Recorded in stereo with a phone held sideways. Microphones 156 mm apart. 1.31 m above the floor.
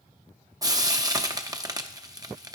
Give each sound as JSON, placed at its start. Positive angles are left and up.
{"t": 0.6, "sound": "frying", "side_deg": -20, "distance_m": 0.6}